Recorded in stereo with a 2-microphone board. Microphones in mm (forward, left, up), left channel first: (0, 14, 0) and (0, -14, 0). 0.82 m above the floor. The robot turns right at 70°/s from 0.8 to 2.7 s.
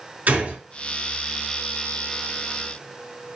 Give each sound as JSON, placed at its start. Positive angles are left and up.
{"t": 0.3, "sound": "a gunshot", "side_deg": -70, "distance_m": 5.0}